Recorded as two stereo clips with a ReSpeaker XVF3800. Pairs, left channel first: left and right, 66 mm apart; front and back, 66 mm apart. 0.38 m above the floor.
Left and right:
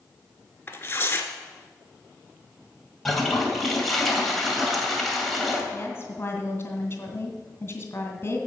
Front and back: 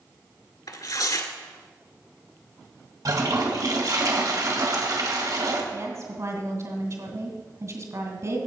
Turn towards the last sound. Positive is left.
turn(degrees=140)